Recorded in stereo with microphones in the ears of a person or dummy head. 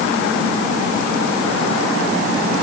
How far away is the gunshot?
I don't hear a gunshot.